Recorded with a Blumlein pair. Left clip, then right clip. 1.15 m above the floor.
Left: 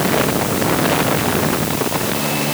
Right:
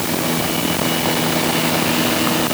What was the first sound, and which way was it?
Only background noise.